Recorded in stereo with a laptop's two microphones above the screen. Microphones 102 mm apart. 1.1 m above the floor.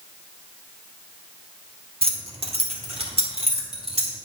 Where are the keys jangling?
65° right (ahead or behind), 1.3 m; by 4.1 s 75° right (ahead or behind), 3 m.